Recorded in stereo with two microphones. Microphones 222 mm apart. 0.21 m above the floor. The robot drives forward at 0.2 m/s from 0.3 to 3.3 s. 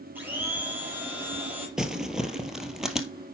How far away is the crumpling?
About 1.3 m.